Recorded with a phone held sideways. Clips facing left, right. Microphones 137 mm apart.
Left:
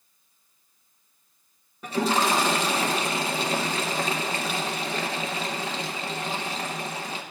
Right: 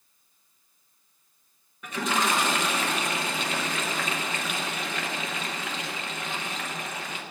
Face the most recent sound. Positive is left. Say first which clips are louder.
# left 4 dB
turn(degrees=35)  # may be behind; listen again after turning